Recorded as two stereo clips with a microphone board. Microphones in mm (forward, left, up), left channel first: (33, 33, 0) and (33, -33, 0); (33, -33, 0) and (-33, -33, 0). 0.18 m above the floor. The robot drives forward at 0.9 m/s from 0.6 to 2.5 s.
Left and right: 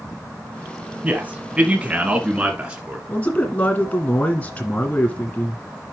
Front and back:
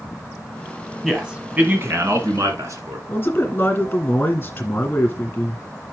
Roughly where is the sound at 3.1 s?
Ahead left.